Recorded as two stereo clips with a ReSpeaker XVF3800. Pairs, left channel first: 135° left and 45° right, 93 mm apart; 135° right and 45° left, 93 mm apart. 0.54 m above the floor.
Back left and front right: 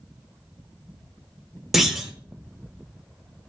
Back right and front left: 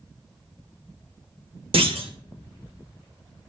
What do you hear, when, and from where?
1.7 s a clunk: 40° left, 0.6 m